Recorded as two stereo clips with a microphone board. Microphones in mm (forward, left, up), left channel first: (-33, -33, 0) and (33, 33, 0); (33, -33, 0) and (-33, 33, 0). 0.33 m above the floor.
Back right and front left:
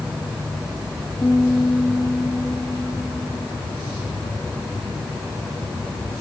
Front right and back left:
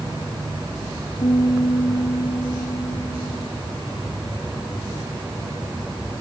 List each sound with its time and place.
1.2 s a piano: 70° right